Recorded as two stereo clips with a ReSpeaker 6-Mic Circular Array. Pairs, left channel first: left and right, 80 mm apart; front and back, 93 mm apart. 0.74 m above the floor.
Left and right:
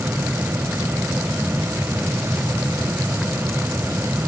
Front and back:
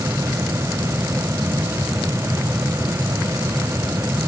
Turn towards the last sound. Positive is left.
No sound to turn to.